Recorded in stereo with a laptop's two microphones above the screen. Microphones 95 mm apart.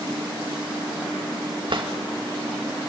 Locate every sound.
1.7 s a drawer: 60° right (ahead or behind), 1.6 m